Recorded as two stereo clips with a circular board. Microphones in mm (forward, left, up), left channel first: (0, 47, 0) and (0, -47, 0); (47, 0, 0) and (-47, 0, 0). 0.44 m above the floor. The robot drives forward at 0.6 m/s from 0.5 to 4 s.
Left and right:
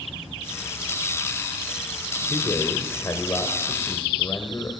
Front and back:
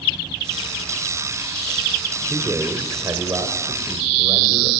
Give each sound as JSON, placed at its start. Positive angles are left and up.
{"t": 2.3, "sound": "a man speaking", "azimuth_deg": 120, "distance_m": 1.8}